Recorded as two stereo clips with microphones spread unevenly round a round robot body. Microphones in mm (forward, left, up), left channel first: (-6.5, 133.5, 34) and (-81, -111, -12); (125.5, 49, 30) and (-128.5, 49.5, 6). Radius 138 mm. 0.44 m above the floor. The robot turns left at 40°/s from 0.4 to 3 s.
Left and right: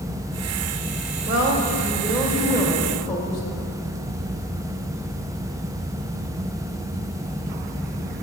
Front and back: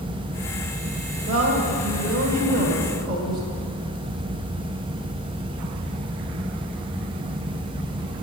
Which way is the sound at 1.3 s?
120° right.